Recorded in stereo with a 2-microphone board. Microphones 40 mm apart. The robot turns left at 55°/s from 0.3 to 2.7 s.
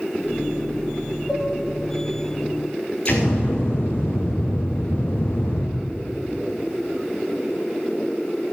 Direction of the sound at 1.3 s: 5° left (ahead or behind).